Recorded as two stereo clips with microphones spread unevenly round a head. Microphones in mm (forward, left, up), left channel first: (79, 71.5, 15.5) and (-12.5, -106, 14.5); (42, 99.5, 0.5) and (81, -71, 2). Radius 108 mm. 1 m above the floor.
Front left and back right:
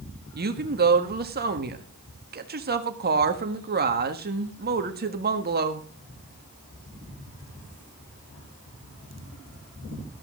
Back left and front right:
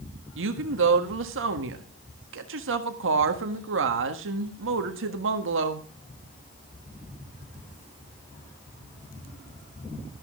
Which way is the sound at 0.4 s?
75° right.